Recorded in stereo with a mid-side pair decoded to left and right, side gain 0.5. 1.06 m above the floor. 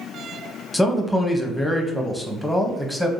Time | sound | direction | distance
0.7 | a man speaking | straight ahead | 0.7 m